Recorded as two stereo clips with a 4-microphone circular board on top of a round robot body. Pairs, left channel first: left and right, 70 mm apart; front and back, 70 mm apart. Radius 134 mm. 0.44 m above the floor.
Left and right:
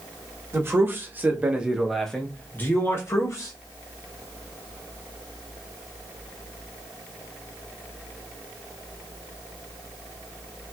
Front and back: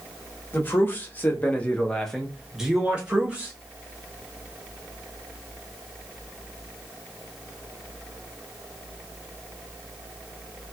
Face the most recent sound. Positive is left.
turn(degrees=115)